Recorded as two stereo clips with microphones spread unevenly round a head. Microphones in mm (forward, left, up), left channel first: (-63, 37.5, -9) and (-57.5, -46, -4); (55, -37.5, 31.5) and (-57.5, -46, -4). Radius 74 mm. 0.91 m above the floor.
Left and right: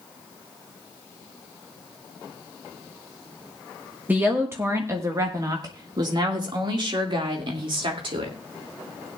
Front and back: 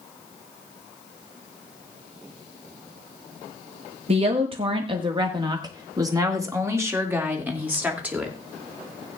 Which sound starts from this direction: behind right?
A woman speaking, at 4.1 s.